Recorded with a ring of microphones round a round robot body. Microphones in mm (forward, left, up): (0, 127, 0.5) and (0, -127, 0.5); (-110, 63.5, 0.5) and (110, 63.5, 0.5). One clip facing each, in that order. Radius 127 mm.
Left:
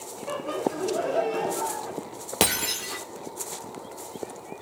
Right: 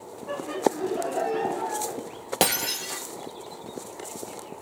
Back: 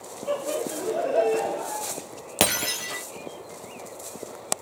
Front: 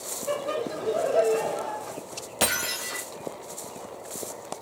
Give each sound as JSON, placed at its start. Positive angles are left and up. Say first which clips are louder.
{"t": 0.3, "sound": "laughter", "louder": "right 2 dB, back 1 dB", "azimuth_deg": 80, "distance_m": 3.5}
{"t": 2.4, "sound": "breaking glass", "louder": "even, back 4 dB", "azimuth_deg": 165, "distance_m": 2.5}